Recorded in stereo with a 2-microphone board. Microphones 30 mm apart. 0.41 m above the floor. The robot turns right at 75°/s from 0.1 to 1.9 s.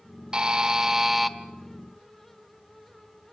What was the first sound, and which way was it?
A buzzer, 30° right (ahead or behind).